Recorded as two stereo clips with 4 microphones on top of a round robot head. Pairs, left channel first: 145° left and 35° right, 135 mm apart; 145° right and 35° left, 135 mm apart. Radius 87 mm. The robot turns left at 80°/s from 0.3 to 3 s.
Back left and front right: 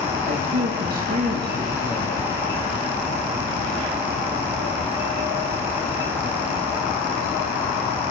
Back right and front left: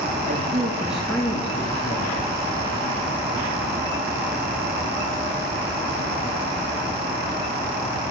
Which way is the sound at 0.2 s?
Straight ahead.